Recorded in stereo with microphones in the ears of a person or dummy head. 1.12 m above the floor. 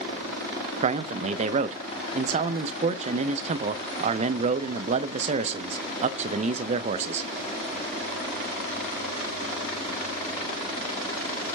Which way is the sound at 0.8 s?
35° right (ahead or behind).